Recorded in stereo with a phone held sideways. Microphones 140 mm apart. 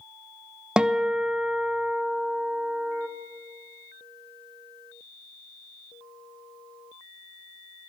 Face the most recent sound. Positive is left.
turn(degrees=-5)  # may be behind; listen again after turning